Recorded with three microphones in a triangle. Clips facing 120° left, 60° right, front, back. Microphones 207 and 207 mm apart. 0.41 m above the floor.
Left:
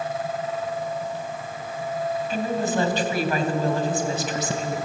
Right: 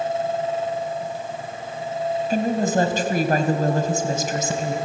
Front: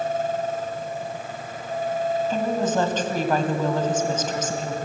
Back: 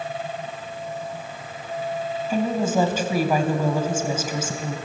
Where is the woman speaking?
100° right, 2.5 m.